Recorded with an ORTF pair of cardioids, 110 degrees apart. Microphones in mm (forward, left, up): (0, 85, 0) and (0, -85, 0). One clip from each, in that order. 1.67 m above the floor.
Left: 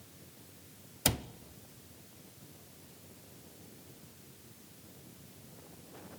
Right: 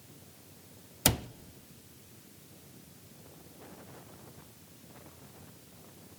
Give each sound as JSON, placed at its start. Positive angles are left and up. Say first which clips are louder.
{"t": 1.1, "sound": "a cupboard door", "louder": "right 3 dB", "azimuth_deg": -15, "distance_m": 0.6}